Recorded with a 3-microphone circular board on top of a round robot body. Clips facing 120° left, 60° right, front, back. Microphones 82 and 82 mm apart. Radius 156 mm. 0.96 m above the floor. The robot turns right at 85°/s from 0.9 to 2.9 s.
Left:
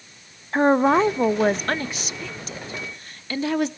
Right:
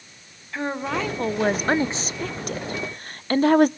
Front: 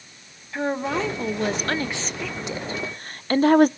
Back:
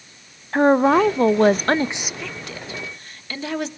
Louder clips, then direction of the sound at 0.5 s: Left 10 dB, back 10 dB; 160° left.